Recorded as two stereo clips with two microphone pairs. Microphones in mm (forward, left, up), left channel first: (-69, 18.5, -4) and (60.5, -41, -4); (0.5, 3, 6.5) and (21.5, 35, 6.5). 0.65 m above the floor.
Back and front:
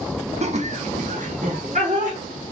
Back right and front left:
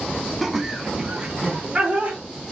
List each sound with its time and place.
0.4 s laughter: 25° right, 0.7 m; by 2.2 s straight ahead, 1.8 m